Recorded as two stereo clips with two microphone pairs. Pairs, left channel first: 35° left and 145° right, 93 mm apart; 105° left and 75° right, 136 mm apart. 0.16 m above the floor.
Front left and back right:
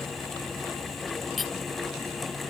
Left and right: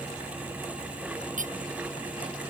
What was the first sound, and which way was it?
Cutlery clinking, 55° right.